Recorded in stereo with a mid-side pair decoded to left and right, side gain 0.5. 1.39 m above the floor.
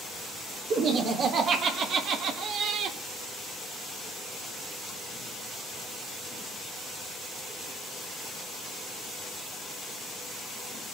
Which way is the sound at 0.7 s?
60° right.